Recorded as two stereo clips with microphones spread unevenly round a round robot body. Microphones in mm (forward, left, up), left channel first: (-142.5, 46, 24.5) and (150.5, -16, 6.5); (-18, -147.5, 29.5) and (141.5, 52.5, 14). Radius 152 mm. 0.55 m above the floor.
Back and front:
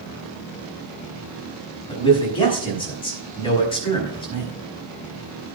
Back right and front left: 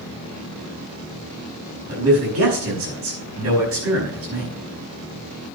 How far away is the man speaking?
About 5 m.